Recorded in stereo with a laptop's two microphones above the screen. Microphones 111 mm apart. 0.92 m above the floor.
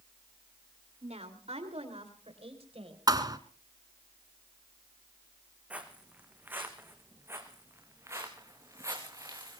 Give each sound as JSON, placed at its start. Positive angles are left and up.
{"t": 1.0, "sound": "a woman speaking", "side_deg": -75, "distance_m": 2.5}
{"t": 3.1, "sound": "a thud", "side_deg": -35, "distance_m": 1.7}
{"t": 5.7, "sound": "footsteps", "side_deg": -10, "distance_m": 3.0}